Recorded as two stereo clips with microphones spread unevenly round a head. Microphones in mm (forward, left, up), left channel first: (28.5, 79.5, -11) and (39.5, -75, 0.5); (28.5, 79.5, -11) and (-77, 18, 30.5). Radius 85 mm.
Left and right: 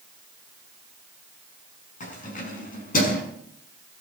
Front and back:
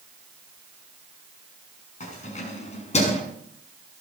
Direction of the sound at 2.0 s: 55° left.